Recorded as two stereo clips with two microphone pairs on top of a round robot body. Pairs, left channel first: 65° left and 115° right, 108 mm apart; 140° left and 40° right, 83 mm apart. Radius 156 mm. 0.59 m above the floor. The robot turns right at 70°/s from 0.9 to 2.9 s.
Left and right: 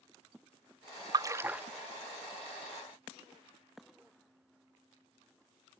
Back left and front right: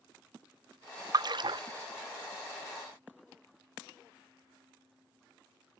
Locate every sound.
1.1 s a splash: 65° right; by 1.6 s 30° right